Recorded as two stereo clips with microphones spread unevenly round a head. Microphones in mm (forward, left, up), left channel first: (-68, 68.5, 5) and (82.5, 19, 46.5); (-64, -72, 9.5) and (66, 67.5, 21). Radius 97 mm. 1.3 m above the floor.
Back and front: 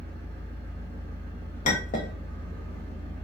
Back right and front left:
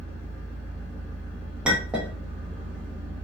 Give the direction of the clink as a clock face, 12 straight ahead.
8 o'clock.